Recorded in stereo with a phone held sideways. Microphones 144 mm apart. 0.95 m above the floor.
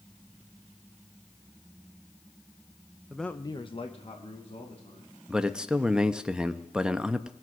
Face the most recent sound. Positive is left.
turn(degrees=-5)  # may be behind; listen again after turning